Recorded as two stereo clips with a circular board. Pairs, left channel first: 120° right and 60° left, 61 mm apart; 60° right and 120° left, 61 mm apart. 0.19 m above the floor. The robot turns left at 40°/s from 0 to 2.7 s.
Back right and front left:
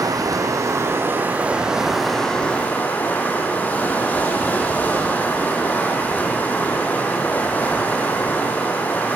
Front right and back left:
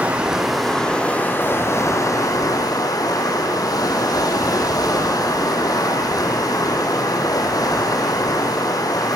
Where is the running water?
50° left, 6 m; by 9.2 s 60° right, 6 m.